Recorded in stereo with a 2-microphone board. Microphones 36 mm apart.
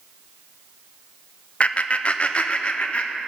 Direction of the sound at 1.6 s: 35° left (ahead or behind).